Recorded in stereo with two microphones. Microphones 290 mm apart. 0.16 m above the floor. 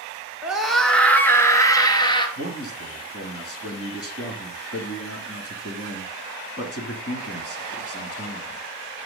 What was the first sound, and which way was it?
A scream, 5° right (ahead or behind).